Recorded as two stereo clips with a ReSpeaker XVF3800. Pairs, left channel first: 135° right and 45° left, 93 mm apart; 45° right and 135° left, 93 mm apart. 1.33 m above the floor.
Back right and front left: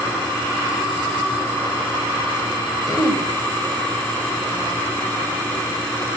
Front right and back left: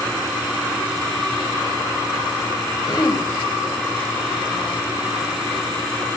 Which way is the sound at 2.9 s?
90° right.